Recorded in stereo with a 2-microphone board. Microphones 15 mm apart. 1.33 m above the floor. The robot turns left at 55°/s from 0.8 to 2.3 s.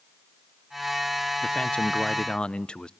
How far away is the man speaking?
About 0.6 m.